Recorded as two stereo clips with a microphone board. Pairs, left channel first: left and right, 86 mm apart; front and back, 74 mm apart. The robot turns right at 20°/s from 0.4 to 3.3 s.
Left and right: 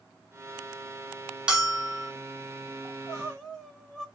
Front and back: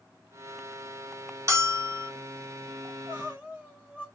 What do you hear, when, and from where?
1.5 s a bell: 165° right, 1.5 m; by 2.1 s 155° right, 1.5 m
2.9 s crying: 155° left, 1.3 m; by 4.0 s 165° left, 1.3 m